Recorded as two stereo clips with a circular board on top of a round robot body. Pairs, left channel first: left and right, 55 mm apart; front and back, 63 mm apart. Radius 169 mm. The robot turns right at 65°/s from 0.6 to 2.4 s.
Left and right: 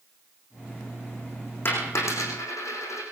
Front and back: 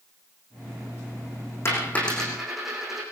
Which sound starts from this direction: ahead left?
A dropped coin, at 1.6 s.